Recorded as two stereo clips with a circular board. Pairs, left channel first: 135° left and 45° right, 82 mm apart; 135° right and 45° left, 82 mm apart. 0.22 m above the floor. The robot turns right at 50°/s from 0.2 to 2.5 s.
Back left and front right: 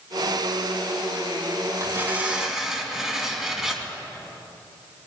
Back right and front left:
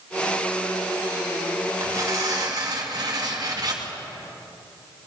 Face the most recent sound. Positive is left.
turn(degrees=35)